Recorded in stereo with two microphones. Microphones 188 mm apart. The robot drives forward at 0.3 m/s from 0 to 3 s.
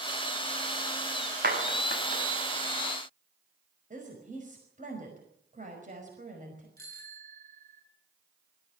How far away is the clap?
About 5.5 m.